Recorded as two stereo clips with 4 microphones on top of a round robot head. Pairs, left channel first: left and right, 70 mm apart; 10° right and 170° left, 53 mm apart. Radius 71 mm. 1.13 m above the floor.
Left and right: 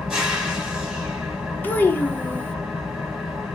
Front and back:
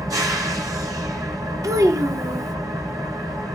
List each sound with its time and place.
0.0 s an engine running: 170° right, 1.6 m
1.6 s a child speaking: 155° left, 0.8 m